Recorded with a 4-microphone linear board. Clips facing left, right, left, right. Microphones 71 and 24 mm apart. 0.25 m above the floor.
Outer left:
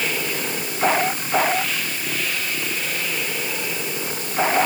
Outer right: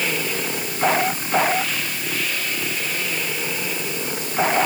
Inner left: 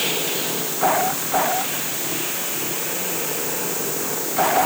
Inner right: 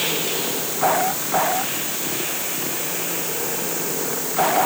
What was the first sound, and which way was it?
Only background noise.